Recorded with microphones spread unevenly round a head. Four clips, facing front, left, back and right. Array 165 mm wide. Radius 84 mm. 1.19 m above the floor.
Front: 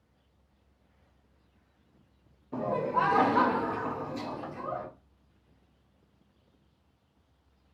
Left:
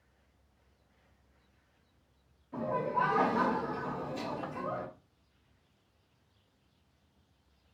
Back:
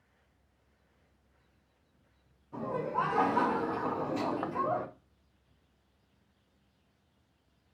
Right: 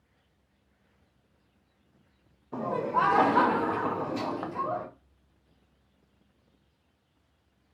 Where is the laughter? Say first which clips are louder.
Right 4 dB, front 4 dB; 45° right, 0.8 m; by 4.9 s 160° right, 0.7 m.